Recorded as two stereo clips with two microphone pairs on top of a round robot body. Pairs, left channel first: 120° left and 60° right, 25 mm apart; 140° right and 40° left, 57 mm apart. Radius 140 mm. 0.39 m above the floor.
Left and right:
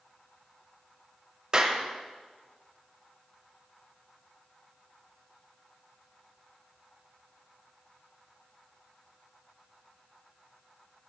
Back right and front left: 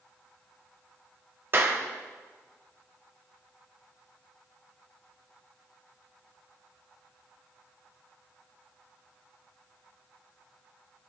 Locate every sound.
1.5 s a clap: 10° right, 1.7 m